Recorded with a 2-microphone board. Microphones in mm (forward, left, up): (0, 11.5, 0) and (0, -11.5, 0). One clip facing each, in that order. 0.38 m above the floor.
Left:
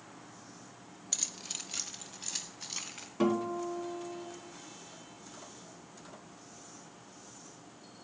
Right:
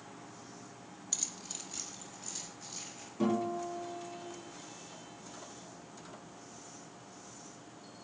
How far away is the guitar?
About 3.5 m.